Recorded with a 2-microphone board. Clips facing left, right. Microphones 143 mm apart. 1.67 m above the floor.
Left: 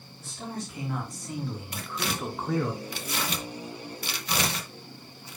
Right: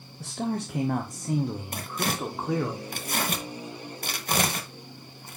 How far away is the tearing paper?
About 1.0 m.